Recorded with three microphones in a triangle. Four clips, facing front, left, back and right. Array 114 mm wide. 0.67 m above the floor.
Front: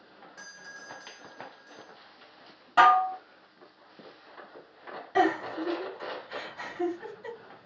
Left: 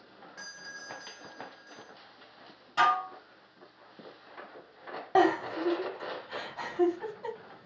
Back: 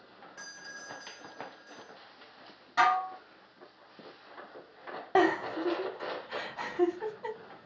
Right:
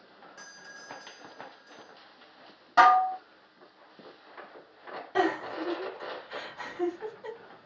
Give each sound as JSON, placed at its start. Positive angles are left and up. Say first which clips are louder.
{"t": 0.4, "sound": "a doorbell", "louder": "left 4 dB, even", "azimuth_deg": 60, "distance_m": 1.1}
{"t": 2.8, "sound": "dishes clattering", "louder": "right 7 dB, front 7 dB", "azimuth_deg": -45, "distance_m": 0.5}
{"t": 5.2, "sound": "a giggle", "louder": "left 3 dB, even", "azimuth_deg": 140, "distance_m": 1.5}